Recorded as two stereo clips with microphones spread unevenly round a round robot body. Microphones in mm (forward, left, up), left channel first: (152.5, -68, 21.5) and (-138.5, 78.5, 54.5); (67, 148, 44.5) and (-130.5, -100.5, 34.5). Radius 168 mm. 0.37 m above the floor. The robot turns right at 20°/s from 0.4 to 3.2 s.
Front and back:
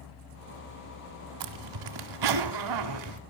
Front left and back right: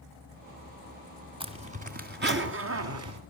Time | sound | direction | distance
1.4 | a zipper | 155° left | 2 m